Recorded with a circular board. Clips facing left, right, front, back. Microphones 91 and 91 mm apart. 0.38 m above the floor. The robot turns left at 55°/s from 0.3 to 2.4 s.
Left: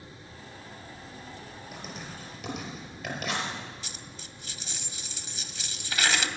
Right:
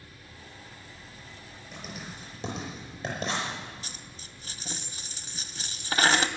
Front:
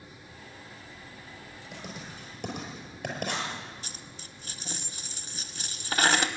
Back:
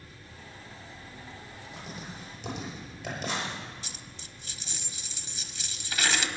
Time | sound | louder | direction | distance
1.7 | writing | right 1 dB, even | 5° left | 5.5 m
3.8 | a dropped coin | left 1 dB, front 1 dB | 40° right | 0.7 m